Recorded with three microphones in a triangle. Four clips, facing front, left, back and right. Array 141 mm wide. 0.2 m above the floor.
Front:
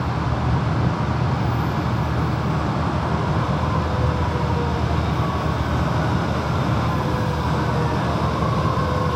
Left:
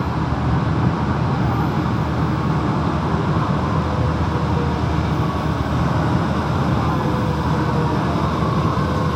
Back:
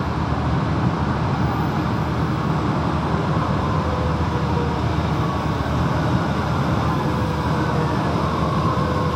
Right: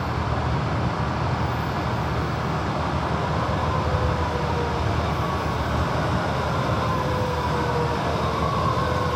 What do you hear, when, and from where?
0.0 s an aircraft: 115° left